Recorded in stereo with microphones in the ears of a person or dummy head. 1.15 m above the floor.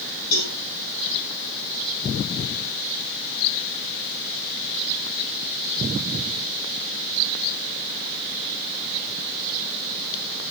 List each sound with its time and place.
0.3 s a cowbell: 40° left (ahead or behind), 4.5 m